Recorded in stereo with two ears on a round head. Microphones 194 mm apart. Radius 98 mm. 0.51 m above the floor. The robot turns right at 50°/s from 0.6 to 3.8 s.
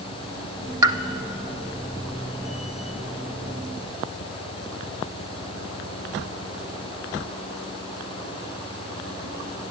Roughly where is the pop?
Centre.